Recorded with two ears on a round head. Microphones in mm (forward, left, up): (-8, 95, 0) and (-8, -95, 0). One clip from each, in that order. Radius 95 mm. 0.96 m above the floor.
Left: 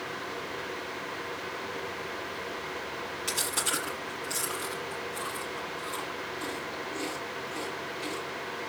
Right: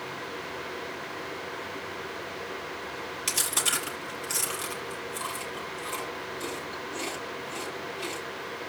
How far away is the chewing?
About 5.5 m.